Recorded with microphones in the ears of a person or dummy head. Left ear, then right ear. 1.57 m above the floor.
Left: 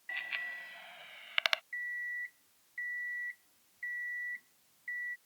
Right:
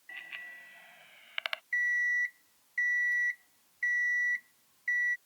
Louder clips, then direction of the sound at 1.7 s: Right 10 dB; 35° right (ahead or behind).